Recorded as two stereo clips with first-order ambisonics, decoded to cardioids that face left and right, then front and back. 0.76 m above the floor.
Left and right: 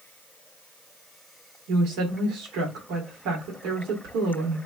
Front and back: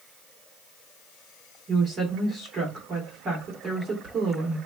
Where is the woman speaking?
115° right, 1.5 m.